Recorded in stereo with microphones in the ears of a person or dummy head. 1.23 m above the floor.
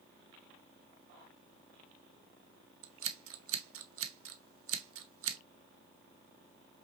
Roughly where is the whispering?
I don't hear whispering.